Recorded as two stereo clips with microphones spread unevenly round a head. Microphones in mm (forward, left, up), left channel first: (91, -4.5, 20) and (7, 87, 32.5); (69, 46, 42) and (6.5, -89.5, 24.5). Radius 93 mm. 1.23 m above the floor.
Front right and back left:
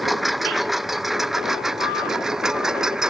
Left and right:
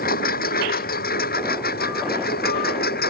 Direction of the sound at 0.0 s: 45° left.